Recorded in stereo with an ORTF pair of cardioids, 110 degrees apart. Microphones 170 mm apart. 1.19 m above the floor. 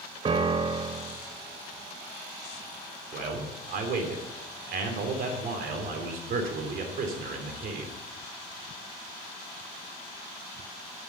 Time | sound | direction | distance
0.2 | a piano | 30° right | 0.9 m
3.1 | a man speaking | 65° right | 3 m